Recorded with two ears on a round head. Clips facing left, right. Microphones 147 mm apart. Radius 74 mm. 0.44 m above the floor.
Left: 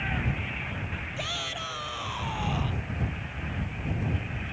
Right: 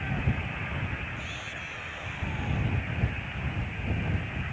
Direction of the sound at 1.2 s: 75° left (ahead or behind).